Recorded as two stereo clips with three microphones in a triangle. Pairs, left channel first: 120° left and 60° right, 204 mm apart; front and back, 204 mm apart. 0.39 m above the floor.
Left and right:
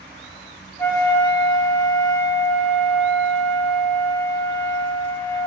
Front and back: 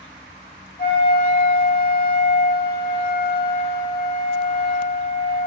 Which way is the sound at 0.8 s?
45° left.